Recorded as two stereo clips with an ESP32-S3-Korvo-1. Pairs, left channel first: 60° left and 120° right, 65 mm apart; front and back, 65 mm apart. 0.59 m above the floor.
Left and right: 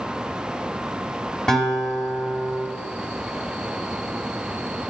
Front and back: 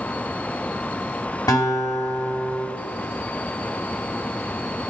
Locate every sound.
1.5 s a guitar: 20° right, 1.3 m